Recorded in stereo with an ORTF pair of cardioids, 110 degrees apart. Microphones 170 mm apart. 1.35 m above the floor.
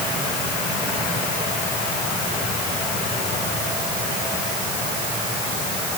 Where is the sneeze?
No sneeze in this recording.